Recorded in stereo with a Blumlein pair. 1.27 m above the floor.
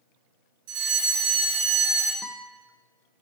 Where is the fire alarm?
45° right, 4 m.